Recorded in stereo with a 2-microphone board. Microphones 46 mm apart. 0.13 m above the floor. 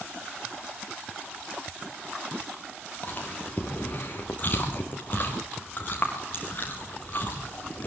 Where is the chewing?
40° left (ahead or behind), 7.5 m.